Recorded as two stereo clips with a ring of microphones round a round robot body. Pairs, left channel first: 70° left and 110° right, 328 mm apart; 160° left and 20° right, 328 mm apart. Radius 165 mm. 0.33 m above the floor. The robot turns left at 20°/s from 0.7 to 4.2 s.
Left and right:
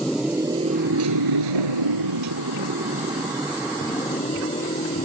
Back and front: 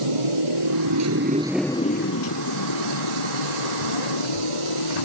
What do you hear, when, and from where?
0.0 s a motorcycle: 20° right; by 5.0 s 140° left